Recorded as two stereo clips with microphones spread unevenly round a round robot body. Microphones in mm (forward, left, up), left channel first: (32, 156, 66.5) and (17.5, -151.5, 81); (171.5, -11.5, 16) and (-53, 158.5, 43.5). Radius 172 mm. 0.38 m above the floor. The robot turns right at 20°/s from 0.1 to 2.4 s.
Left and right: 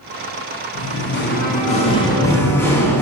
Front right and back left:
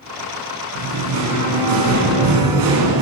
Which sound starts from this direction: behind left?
Singing, at 0.8 s.